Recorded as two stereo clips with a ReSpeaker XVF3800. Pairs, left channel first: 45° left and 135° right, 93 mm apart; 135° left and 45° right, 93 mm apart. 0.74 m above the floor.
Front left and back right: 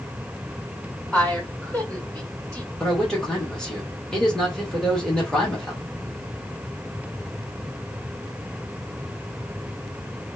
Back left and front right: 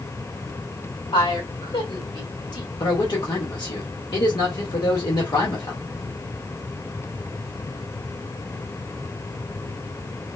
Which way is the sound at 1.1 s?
120° left.